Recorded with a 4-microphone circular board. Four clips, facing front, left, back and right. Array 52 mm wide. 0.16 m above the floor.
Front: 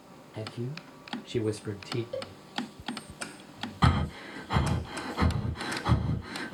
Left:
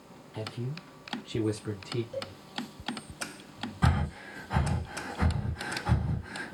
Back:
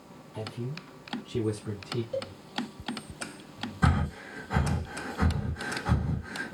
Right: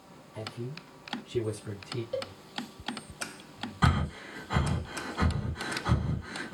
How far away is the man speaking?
About 1.4 m.